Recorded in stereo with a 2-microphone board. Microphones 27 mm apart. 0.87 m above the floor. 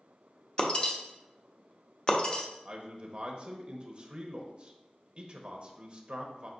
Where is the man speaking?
30° right (ahead or behind), 0.7 m.